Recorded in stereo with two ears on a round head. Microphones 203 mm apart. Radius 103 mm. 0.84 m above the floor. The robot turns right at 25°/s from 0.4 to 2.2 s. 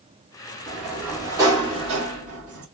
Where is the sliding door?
Straight behind, 2 m; by 2.6 s 140° right, 2 m.